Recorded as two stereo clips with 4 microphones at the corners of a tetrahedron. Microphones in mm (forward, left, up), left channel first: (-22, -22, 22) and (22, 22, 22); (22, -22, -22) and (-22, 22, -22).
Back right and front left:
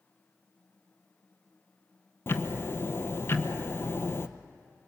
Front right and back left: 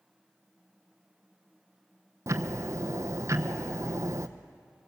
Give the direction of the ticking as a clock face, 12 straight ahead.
6 o'clock.